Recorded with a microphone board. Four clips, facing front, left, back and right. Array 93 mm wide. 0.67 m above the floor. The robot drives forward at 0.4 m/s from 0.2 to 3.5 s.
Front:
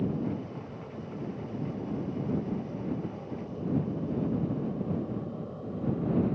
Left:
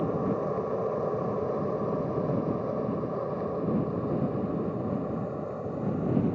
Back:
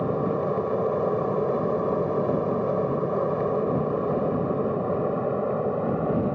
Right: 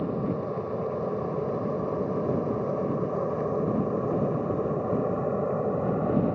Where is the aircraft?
170° left; by 6.4 s 145° right.